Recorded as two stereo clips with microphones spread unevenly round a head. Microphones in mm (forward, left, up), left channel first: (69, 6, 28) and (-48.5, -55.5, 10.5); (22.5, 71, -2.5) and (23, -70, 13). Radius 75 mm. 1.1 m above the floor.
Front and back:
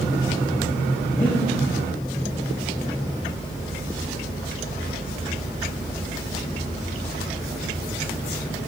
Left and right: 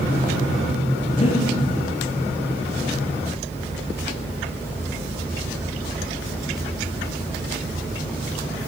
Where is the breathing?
75° left, 0.5 m.